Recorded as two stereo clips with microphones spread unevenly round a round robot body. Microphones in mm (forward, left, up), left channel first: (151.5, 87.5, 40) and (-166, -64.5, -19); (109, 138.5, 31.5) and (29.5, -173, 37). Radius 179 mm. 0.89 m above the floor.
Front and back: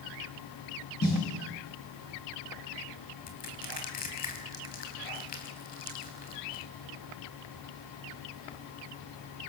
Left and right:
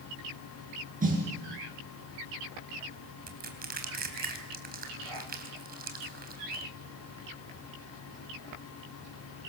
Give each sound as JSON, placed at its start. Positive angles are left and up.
{"t": 1.0, "sound": "a snare drum", "azimuth_deg": -40, "distance_m": 7.5}
{"t": 3.3, "sound": "crushing", "azimuth_deg": -40, "distance_m": 3.0}